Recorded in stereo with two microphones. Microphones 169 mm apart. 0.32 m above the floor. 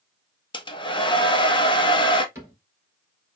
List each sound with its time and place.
0.5 s a hair dryer: 30° left (ahead or behind), 0.6 m
2.4 s a cupboard door: 15° right (ahead or behind), 2 m